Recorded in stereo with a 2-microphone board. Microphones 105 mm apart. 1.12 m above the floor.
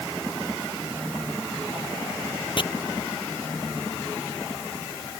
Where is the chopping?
50° left (ahead or behind).